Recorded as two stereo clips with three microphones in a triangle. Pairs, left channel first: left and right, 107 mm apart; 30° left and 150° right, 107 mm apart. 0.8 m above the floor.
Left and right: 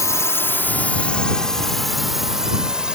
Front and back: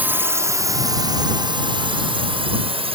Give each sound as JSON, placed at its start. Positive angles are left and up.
{"t": 0.0, "sound": "a drone", "azimuth_deg": 140}